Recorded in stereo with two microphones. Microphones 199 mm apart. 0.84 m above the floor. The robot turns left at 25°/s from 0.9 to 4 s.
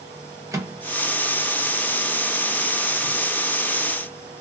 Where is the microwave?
15° right (ahead or behind), 0.6 m; by 3.2 s 20° right (ahead or behind), 0.6 m.